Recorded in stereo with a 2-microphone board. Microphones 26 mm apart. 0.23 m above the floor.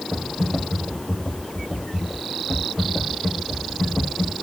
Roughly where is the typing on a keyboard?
Left.